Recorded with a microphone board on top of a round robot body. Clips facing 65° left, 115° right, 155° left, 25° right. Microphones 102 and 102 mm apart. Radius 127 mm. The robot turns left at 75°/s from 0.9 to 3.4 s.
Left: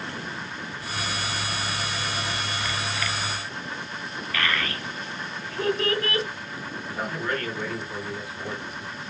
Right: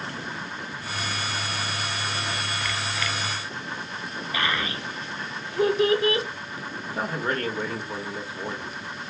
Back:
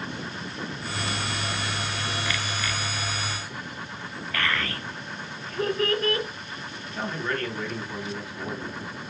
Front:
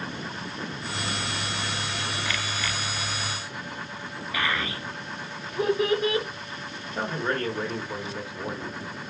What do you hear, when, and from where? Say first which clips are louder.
4.3 s a child speaking: even, even; 75° right, 0.7 m
6.8 s a man speaking: right 2 dB, front 2 dB; 75° right, 1.3 m